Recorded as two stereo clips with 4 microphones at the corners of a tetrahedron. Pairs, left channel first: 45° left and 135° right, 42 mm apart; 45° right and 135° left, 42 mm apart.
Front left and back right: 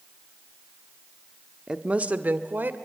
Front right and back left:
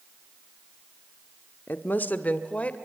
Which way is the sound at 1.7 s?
60° right.